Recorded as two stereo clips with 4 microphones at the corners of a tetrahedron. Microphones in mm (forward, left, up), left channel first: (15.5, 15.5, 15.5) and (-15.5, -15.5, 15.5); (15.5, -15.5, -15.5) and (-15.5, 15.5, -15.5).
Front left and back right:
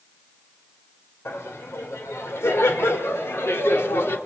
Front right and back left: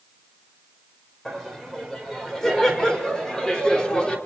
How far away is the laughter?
About 4.5 m.